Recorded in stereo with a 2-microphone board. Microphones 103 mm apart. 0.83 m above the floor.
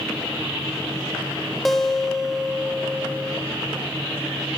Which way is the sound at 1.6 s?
Centre (ahead or behind).